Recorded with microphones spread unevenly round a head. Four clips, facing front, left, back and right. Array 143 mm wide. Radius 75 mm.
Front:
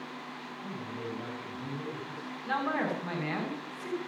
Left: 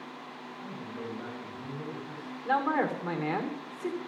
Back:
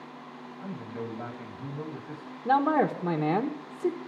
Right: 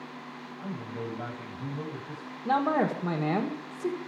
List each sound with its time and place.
0.6 s a man speaking: 130° right, 9.5 m
2.5 s a man speaking: 160° right, 1.9 m